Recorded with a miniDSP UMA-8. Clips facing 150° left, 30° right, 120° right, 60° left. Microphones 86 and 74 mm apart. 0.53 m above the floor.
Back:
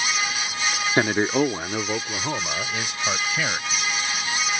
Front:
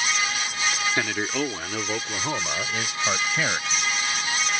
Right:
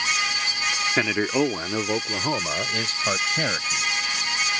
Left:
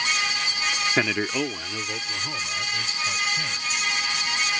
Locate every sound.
1.0 s a man speaking: 145° left; by 3.8 s 110° right